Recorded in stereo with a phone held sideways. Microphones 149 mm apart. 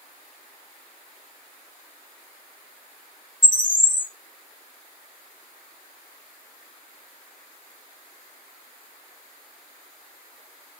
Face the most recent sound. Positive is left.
turn(degrees=30)  # may be behind; listen again after turning